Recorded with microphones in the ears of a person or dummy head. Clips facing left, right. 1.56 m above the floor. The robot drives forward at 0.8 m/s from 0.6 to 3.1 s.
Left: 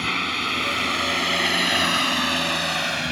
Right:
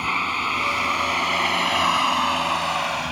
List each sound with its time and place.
0.0 s a vehicle: 15° left (ahead or behind); by 3.1 s 25° left (ahead or behind)